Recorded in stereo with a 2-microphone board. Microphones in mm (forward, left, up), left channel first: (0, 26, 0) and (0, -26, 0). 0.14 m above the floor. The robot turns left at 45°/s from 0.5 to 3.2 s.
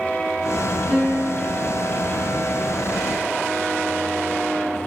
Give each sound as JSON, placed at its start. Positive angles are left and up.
{"t": 0.9, "sound": "a piano", "azimuth_deg": 25, "distance_m": 3.0}